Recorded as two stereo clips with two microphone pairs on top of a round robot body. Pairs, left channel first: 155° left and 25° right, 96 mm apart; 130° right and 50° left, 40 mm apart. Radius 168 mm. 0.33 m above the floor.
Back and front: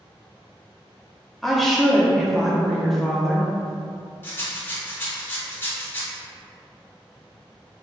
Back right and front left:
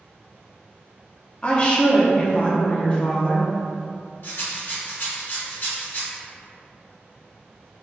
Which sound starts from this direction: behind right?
A rattle, at 4.2 s.